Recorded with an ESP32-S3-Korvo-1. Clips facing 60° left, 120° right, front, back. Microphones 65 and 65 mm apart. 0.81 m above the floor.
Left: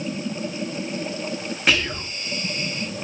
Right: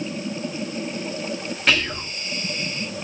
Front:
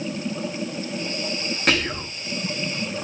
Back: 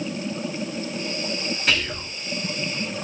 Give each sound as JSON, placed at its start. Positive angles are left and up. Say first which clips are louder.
{"t": 1.7, "sound": "whispering", "louder": "even, front 3 dB", "azimuth_deg": -15, "distance_m": 1.0}